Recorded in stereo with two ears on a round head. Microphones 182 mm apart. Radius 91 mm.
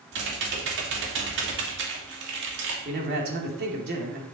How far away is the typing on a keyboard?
About 2.5 m.